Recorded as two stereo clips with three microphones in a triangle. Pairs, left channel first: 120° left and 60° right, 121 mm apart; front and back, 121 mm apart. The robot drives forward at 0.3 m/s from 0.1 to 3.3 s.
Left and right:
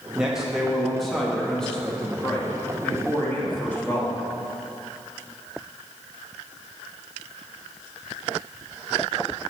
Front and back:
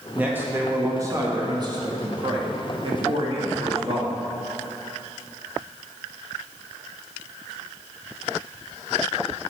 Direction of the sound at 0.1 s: 130° right.